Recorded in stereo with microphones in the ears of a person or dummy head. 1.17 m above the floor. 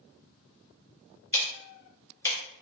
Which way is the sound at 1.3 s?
15° left (ahead or behind).